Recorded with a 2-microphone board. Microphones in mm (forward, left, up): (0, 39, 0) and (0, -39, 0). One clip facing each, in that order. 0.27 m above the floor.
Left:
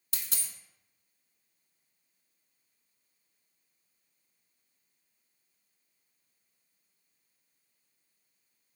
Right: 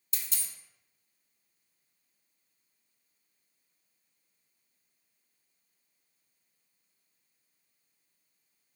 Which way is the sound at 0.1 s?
60° left (ahead or behind).